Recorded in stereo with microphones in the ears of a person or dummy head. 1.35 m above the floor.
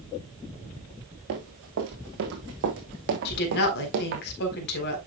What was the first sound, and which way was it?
Running footsteps, 70° right (ahead or behind).